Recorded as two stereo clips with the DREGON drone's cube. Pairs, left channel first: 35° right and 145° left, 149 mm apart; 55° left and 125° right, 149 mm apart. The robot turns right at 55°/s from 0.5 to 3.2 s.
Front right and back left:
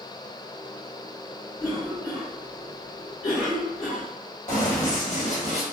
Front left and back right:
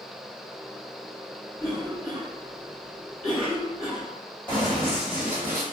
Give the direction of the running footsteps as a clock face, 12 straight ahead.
1 o'clock.